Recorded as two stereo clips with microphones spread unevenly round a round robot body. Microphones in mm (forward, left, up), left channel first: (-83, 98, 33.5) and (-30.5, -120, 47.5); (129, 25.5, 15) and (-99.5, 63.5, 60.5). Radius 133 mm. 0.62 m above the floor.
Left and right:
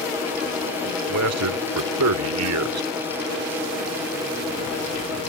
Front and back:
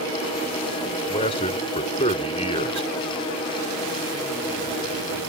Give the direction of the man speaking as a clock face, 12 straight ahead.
3 o'clock.